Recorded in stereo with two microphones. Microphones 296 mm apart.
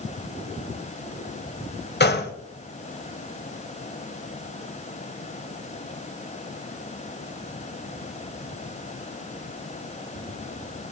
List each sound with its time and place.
2.0 s a gunshot: 35° left (ahead or behind), 1.2 m